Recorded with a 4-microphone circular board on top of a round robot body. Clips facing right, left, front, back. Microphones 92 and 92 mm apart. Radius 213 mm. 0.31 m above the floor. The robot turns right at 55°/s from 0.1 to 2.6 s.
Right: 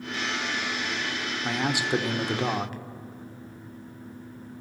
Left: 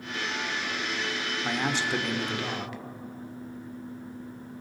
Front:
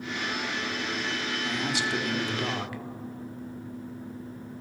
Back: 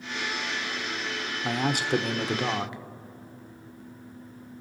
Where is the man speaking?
175° left, 1.5 m; by 2.8 s 120° right, 1.5 m.